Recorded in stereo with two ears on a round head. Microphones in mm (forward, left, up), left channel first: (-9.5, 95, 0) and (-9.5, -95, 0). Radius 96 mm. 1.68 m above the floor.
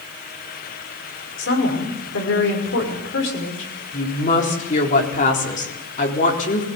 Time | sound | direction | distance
1.4 | a woman speaking | 60° left (ahead or behind) | 6 m
3.9 | a woman speaking | 35° left (ahead or behind) | 4 m